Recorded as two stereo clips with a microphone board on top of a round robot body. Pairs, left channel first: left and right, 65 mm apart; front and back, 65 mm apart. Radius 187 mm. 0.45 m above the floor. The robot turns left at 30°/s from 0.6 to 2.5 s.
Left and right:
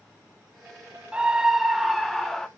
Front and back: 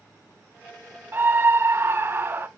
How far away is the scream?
About 0.8 m.